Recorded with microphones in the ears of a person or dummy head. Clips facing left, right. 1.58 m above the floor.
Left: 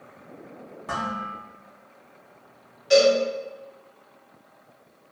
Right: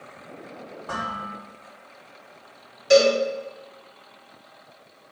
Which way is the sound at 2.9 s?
65° right (ahead or behind).